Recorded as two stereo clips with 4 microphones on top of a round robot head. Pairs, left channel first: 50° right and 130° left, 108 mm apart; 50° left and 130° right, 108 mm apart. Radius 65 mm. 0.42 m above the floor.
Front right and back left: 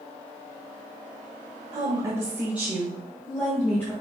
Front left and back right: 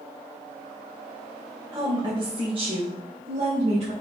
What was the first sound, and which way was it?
A woman speaking, 175° left.